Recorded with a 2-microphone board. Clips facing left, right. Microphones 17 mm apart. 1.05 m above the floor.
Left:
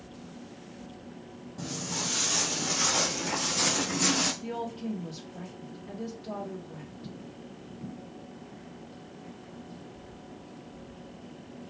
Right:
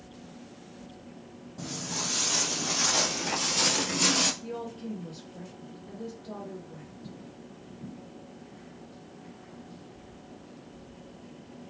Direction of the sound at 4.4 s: 80° left.